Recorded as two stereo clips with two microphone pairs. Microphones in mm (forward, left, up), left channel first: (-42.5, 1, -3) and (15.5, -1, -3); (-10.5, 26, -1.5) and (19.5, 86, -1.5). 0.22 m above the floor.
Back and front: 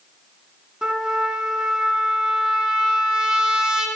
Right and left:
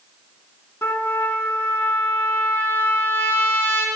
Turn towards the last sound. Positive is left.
turn(degrees=-70)